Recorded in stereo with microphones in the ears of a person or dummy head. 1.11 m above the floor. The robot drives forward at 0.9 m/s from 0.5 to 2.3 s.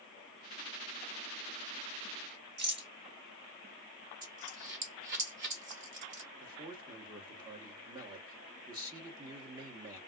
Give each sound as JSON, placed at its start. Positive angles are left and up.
{"t": 2.6, "sound": "a rattle", "side_deg": -50, "distance_m": 1.2}
{"t": 4.2, "sound": "a dropped coin", "side_deg": -45, "distance_m": 0.6}
{"t": 6.4, "sound": "a man speaking", "side_deg": -20, "distance_m": 1.0}